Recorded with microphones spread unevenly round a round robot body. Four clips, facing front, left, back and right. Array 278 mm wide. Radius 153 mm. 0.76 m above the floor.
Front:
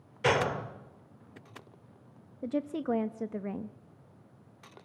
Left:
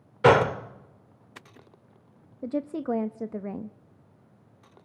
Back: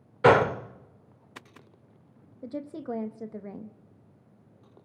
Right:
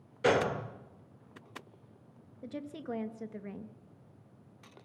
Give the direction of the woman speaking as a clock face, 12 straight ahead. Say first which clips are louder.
Left 11 dB, front 4 dB; 10 o'clock.